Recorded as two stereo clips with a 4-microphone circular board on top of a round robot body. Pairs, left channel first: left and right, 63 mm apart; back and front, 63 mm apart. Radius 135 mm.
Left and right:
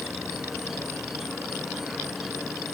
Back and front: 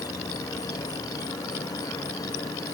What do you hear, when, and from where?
0.0 s an insect: 175° right